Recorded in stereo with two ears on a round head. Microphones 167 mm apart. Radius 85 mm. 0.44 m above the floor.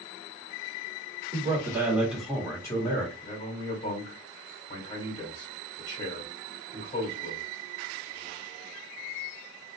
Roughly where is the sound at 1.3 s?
Right.